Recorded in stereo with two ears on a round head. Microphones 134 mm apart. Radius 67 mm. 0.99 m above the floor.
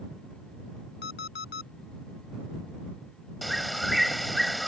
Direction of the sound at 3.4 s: Centre (ahead or behind).